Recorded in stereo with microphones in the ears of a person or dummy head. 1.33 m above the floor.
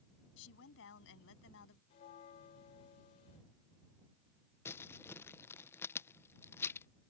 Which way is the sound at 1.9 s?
35° left (ahead or behind).